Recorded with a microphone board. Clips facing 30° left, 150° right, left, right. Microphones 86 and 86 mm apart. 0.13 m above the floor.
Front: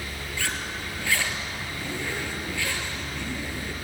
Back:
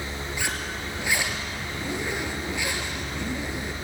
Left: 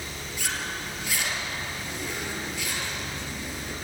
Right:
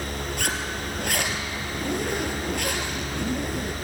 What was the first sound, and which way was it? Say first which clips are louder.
A zipper: front 1 dB, right 1 dB; 80° right.